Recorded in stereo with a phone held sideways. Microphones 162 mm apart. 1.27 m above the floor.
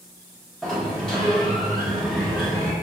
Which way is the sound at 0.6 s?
5° left (ahead or behind).